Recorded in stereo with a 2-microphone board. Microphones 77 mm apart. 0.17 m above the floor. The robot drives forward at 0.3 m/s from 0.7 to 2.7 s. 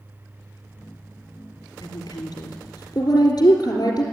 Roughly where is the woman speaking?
Left.